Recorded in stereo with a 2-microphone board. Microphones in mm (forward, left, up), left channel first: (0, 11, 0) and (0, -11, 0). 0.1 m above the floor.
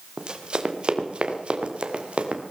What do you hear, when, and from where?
0.2 s running footsteps: 40° right (ahead or behind), 2 m; by 2.4 s 60° right (ahead or behind), 3 m